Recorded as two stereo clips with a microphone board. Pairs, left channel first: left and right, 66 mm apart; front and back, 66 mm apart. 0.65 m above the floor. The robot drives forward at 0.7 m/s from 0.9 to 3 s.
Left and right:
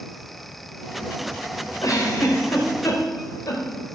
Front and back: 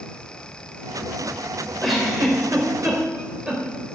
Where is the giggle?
90° left, 3 m; by 3.6 s 105° left, 3 m.